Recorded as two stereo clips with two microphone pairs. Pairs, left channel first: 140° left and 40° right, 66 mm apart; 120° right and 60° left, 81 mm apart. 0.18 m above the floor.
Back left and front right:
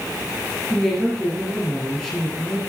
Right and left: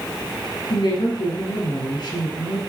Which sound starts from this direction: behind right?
A woman speaking, at 0.7 s.